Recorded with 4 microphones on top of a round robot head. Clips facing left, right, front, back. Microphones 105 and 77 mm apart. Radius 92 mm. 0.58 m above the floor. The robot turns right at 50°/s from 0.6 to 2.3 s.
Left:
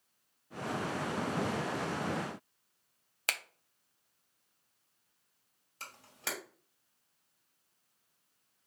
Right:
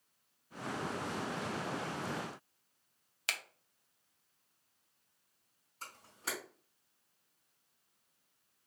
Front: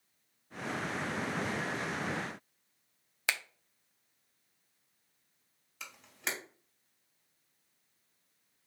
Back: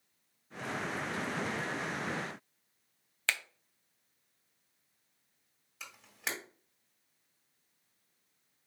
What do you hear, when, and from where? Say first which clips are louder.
3.3 s a finger snap: left 4 dB, even; 75° left, 0.6 m
5.8 s a camera shutter: left 1 dB, front 1 dB; 95° left, 2.5 m